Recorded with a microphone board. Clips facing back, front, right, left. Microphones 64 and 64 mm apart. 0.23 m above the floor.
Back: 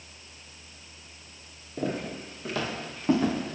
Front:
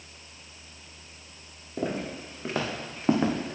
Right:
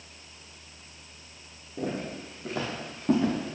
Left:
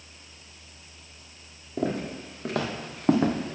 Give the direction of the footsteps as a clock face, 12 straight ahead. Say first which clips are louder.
Even, left 4 dB; 10 o'clock.